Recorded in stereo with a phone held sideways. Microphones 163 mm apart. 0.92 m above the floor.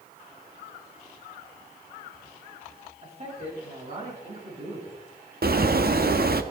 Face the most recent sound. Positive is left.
turn(degrees=-70)  # may be behind; listen again after turning